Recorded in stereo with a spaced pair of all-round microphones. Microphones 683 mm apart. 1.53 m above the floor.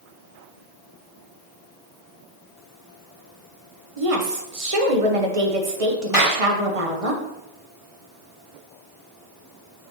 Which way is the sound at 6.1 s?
50° left (ahead or behind).